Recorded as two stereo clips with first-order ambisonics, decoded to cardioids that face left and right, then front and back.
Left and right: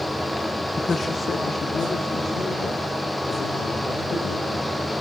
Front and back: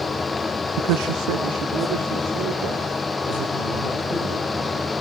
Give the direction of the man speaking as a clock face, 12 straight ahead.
6 o'clock.